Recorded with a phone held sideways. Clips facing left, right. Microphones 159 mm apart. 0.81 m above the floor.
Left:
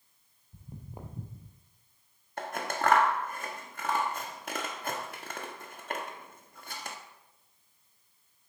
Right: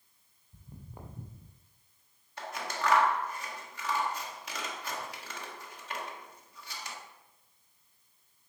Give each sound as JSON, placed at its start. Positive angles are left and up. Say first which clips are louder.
{"t": 0.5, "sound": "footsteps", "louder": "left 3 dB", "side_deg": 15, "distance_m": 1.1}
{"t": 2.4, "sound": "scissors", "louder": "left 4 dB", "side_deg": 50, "distance_m": 0.9}